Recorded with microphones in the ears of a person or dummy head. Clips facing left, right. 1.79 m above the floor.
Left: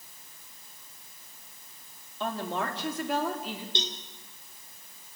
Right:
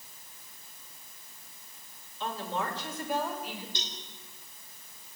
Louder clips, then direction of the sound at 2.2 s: Left 2 dB; 45° left (ahead or behind).